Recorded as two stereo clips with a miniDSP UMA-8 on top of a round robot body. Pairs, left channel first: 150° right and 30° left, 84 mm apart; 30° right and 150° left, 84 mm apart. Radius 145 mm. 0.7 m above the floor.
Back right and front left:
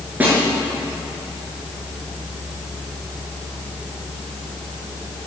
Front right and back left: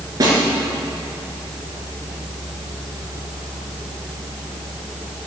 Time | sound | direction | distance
0.2 | a snare drum | 100° left | 3 m